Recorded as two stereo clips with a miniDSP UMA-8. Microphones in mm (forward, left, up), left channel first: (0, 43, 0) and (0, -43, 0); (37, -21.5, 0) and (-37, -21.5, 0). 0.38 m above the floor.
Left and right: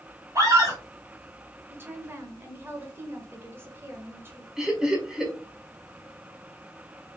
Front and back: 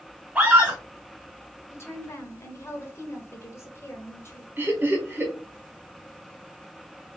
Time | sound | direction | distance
0.3 | a scream | 115° right | 1.6 m
1.7 | a woman speaking | 40° right | 1.0 m
4.6 | laughter | 170° right | 1.2 m